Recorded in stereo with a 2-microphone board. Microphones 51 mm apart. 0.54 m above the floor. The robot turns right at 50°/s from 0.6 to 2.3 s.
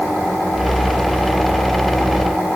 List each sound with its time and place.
Only background noise.